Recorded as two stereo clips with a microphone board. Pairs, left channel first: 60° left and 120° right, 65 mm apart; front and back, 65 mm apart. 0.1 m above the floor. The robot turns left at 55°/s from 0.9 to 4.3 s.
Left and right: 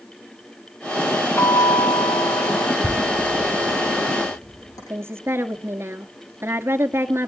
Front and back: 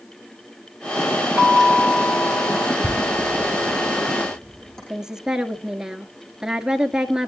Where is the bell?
115° left, 2.5 m; by 2.7 s 40° left, 2.5 m.